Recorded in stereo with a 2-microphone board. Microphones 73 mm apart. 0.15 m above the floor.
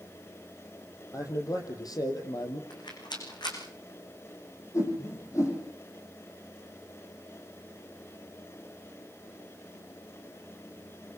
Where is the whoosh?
40° left (ahead or behind), 8 m.